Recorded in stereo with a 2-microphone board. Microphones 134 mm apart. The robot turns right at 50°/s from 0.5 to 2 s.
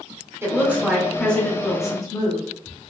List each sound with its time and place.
0.4 s a woman speaking: 30° right, 1.0 m; by 2.4 s 45° left, 1.0 m